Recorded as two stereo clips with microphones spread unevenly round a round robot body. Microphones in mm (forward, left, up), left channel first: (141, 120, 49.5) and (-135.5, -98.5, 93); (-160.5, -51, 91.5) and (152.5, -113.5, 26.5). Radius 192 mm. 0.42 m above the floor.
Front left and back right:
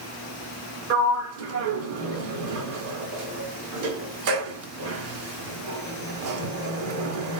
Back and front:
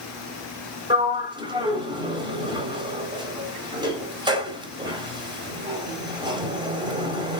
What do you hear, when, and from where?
0.9 s a sliding door: 85° right, 0.9 m